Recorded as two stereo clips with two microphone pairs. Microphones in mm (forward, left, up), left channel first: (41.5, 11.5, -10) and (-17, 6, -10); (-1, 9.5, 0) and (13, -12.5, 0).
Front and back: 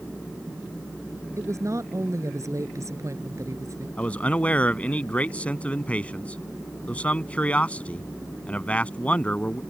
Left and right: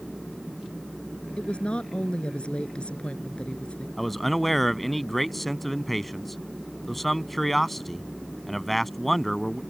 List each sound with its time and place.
1.4 s a woman speaking: 165° left
4.0 s a man speaking: 45° left